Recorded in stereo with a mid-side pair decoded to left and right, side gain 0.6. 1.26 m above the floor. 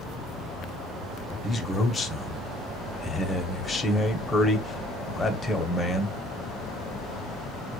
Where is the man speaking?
15° left, 1.0 m.